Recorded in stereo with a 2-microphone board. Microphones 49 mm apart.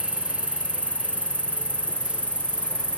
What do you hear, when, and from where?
0.0 s an insect: 25° left (ahead or behind)